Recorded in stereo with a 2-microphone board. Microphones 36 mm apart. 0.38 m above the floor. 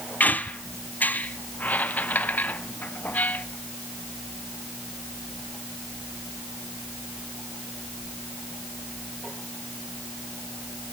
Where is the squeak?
55° left (ahead or behind), 1.0 m.